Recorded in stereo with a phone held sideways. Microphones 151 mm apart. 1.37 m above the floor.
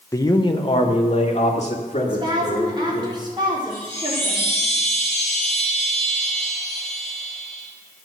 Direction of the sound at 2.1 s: 30° right (ahead or behind).